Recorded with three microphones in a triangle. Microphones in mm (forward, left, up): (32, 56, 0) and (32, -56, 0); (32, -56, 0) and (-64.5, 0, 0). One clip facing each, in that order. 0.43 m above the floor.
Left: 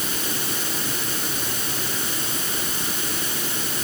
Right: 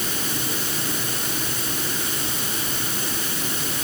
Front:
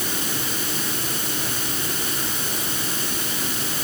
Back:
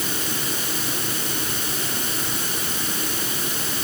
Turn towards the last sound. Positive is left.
No sound to turn to.